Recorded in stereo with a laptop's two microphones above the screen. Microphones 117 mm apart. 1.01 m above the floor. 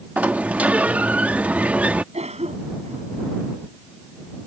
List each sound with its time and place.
0.2 s a sliding door: 15° right (ahead or behind)
2.1 s a cough: 65° right (ahead or behind)